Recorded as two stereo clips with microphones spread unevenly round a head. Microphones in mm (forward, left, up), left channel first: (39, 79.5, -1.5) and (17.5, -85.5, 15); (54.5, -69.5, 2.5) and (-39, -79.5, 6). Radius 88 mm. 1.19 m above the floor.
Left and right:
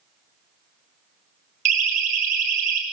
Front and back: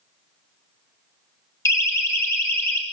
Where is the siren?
55° right, 8 m; by 2.8 s 60° right, 8 m.